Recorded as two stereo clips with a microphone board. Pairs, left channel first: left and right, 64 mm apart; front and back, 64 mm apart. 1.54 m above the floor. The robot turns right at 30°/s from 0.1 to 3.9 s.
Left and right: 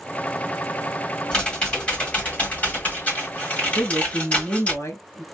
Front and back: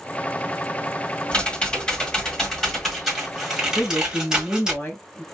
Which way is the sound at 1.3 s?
35° left.